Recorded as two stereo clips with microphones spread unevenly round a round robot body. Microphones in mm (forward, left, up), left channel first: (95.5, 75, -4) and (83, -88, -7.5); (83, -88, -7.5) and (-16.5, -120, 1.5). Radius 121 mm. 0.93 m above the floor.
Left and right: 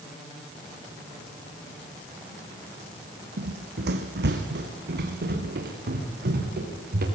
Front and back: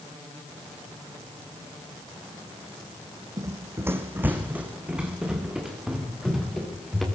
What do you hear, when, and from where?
3.4 s running footsteps: 110° right, 2 m; by 7.0 s 75° right, 6.5 m